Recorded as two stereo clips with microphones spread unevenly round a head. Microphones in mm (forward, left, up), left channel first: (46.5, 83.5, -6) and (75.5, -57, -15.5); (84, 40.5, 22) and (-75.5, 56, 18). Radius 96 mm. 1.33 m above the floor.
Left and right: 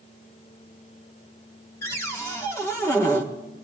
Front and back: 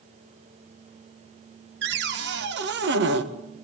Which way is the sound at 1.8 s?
Straight behind.